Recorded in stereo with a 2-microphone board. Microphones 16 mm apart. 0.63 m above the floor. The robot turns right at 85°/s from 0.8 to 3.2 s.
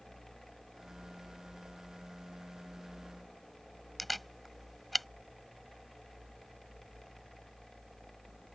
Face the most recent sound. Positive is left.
turn(degrees=0)  # may be behind; listen again after turning